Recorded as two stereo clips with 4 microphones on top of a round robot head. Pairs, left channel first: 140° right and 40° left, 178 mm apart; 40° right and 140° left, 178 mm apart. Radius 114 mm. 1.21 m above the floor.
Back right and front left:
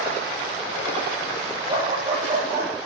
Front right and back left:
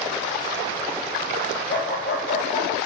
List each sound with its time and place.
1.7 s a dog barking: 20° right, 9 m